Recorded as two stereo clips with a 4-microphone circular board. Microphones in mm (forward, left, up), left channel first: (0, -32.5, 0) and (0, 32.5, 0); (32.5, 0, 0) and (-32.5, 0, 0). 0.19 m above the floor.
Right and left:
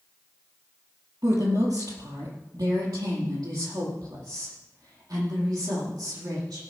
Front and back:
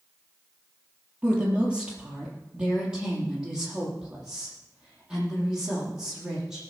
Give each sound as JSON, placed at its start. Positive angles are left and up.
{"t": 1.2, "sound": "a woman speaking", "azimuth_deg": 105, "distance_m": 4.5}